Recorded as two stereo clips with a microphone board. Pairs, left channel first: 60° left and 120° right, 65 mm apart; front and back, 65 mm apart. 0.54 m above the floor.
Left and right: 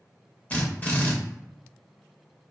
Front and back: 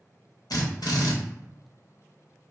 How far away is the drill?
About 0.7 m.